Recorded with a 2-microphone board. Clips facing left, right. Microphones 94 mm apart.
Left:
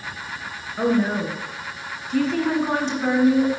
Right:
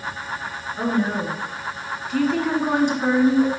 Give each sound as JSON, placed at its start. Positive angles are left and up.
{"t": 0.8, "sound": "a woman speaking", "side_deg": 15, "distance_m": 2.0}